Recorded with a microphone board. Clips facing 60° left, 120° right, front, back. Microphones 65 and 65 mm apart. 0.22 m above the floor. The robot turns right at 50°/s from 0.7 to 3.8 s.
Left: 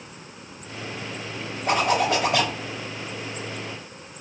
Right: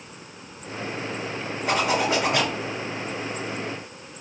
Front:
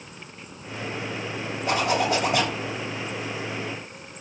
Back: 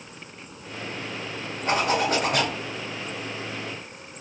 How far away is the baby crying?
I don't hear a baby crying.